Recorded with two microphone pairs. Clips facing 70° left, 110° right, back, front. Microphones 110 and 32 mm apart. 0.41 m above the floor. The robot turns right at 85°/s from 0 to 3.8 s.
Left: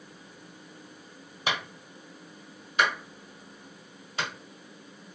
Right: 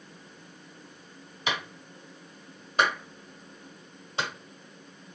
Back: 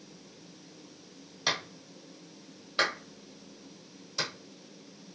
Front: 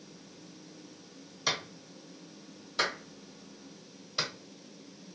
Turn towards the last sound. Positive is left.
turn(degrees=-55)